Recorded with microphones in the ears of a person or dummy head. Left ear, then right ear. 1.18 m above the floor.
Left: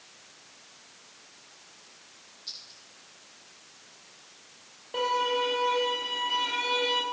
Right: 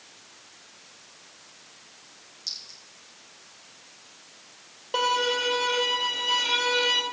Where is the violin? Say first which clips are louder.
Right 3 dB; 35° right (ahead or behind), 2.5 m.